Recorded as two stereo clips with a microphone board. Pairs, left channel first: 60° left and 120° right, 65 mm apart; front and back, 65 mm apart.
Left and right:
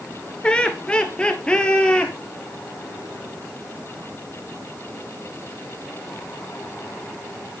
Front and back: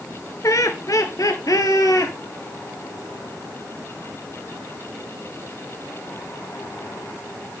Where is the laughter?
10° right, 2 m; by 2.1 s 15° right, 3.5 m.